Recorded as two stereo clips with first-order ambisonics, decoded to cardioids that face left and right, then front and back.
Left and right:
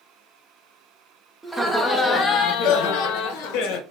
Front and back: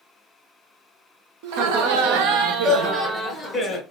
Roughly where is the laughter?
Behind.